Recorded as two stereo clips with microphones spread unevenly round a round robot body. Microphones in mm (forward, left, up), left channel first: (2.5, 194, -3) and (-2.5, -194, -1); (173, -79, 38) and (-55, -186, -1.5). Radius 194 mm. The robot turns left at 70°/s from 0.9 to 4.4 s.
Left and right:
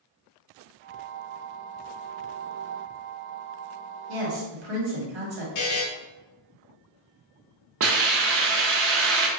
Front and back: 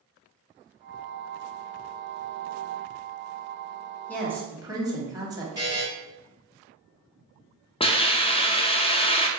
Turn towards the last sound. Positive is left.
turn(degrees=-40)